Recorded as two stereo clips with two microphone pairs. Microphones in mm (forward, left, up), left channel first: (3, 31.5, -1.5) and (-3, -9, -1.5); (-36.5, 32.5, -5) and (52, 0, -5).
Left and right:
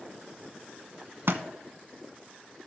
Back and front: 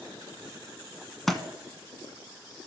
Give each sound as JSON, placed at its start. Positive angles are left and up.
{"t": 1.3, "sound": "a thud", "azimuth_deg": -115, "distance_m": 0.7}